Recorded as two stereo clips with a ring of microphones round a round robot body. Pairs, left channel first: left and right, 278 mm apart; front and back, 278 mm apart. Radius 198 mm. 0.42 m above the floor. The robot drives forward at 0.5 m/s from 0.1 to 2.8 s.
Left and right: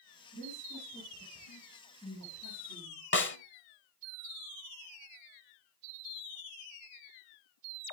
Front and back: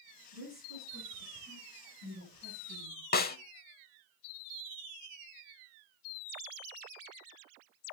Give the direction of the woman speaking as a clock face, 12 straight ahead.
7 o'clock.